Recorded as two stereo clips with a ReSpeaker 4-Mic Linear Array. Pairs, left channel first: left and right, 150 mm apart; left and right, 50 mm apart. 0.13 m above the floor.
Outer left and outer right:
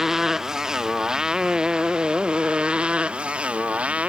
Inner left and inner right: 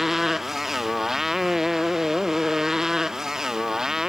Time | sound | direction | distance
0.0 | a motorcycle | 5° right (ahead or behind) | ?